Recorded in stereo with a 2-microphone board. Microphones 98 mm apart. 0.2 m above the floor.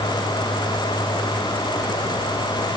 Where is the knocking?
I don't hear knocking.